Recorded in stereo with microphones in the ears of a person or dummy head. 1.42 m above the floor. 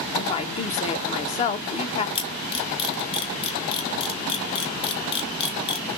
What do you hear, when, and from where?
0.2 s a woman speaking: 35° left (ahead or behind), 1.1 m
2.1 s a camera shutter: 35° left (ahead or behind), 1.9 m